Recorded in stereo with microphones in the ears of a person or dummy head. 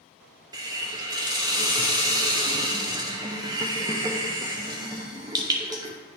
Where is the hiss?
20° right (ahead or behind), 0.6 m.